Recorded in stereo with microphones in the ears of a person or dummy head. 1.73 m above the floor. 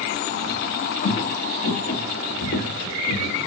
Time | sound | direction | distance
1.0 | footsteps | 40° left (ahead or behind) | 4 m